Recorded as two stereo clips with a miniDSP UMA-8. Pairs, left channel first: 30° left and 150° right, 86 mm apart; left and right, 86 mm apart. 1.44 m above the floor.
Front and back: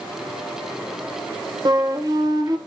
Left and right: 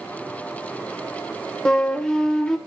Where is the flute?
170° left, 1.0 m.